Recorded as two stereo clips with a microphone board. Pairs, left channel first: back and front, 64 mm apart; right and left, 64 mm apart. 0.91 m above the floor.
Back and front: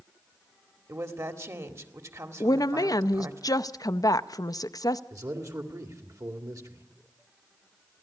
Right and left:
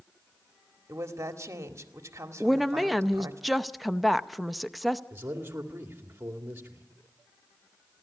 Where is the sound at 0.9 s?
45° left, 1.8 m.